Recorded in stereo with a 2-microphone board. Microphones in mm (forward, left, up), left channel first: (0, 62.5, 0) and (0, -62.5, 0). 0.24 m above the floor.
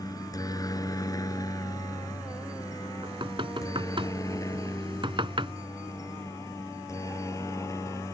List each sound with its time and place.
0.0 s a helicopter: 30° left (ahead or behind); by 8.2 s 25° left (ahead or behind)
3.0 s knocking: 45° right (ahead or behind)